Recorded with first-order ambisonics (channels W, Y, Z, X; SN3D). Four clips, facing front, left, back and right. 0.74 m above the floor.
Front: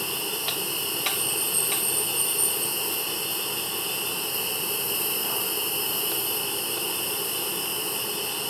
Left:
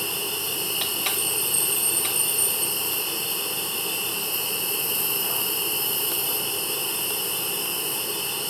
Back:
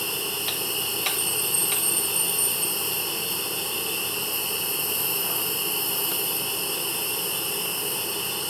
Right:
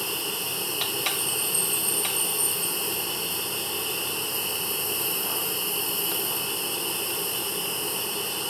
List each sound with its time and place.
0.0 s an insect: 100° left, 1.1 m